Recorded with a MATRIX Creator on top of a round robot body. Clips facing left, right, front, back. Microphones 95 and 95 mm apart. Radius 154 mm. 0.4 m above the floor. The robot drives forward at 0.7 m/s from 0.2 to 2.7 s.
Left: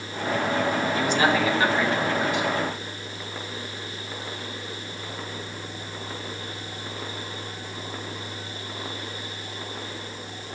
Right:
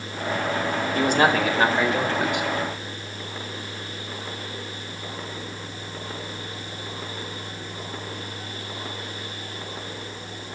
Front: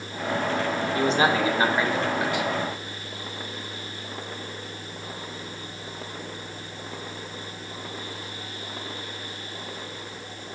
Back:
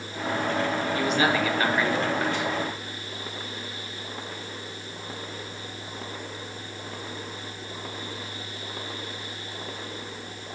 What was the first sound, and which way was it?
A man speaking, 50° right.